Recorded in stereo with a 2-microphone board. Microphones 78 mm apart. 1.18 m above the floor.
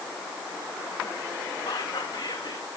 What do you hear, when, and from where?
1.7 s whispering: 70° left (ahead or behind), 2 m